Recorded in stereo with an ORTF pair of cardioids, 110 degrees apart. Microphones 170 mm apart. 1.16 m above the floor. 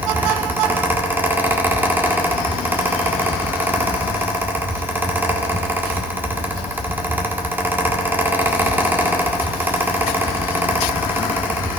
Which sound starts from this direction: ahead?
A fan, at 0.0 s.